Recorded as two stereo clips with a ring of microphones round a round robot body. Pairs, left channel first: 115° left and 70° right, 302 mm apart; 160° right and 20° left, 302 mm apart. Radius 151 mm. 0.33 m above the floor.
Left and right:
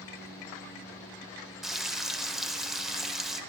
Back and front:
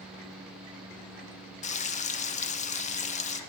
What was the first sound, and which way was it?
Frying, 155° right.